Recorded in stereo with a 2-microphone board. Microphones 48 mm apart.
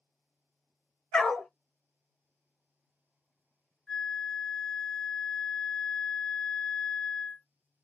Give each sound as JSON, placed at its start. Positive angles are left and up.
{"t": 1.1, "sound": "a dog barking", "side_deg": 10, "distance_m": 0.7}
{"t": 3.9, "sound": "a flute", "side_deg": 5, "distance_m": 0.8}